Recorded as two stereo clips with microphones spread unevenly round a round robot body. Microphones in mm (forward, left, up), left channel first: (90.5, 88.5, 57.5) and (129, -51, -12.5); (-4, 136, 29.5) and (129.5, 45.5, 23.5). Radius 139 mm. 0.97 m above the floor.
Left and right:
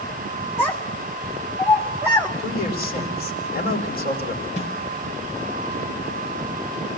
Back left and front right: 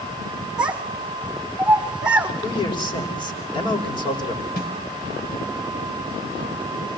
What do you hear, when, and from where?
0.6 s a child speaking: 50° left, 2.5 m
2.4 s a man speaking: 85° left, 5 m
4.6 s a snare drum: 125° left, 5.5 m